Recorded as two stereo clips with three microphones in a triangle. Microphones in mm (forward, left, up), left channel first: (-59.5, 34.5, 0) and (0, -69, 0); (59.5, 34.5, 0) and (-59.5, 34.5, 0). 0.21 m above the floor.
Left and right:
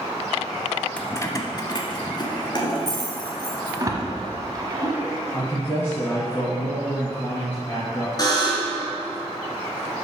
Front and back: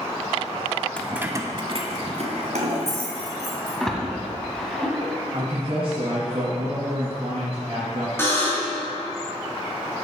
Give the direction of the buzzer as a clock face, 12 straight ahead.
10 o'clock.